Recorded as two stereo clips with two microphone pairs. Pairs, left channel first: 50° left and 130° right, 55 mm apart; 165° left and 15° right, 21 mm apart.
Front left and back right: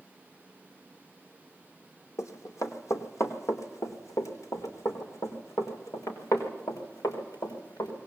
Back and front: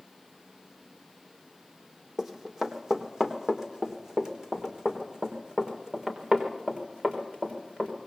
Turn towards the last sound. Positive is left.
turn(degrees=35)